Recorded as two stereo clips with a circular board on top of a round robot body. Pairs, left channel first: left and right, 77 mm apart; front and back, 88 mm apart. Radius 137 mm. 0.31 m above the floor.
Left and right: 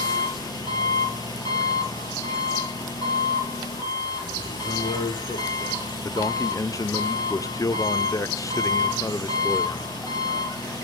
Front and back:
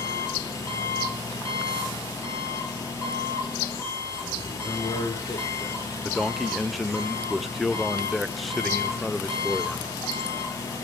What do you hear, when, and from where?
0.0 s an engine running: 55° left, 4 m
4.5 s a man speaking: 65° left, 6.5 m
6.0 s a man speaking: 90° left, 1.1 m